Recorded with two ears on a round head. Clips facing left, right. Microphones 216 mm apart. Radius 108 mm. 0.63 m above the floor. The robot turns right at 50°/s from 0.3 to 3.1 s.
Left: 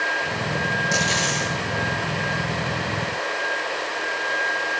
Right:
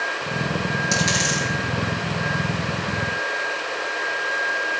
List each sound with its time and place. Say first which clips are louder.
0.9 s a dropped coin: right 1 dB; 30° right (ahead or behind), 8 m; by 1.5 s 60° right (ahead or behind), 8 m